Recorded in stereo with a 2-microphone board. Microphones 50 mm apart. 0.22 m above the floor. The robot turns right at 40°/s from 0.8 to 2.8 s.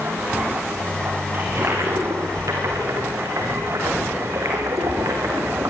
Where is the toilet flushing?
140° right, 7 m; by 5.7 s 85° right, 7 m.